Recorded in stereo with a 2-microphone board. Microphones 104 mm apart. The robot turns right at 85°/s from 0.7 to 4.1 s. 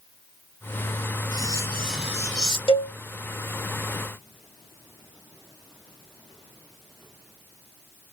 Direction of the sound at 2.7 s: 55° left (ahead or behind).